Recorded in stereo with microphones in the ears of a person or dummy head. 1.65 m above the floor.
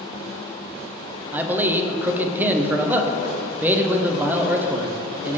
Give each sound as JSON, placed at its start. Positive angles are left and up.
{"t": 1.3, "sound": "a man speaking", "side_deg": -10, "distance_m": 0.6}